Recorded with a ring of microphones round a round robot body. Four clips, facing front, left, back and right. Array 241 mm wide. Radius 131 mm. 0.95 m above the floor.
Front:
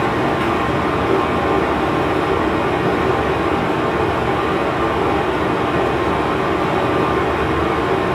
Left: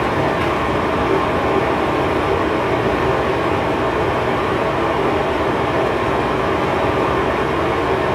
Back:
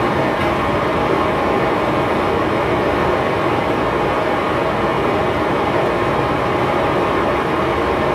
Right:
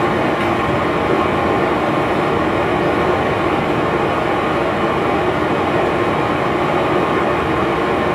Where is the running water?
115° right, 1.6 m.